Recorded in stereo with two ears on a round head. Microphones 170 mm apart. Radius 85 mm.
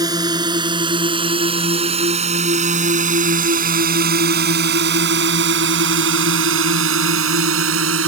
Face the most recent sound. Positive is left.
turn(degrees=-80)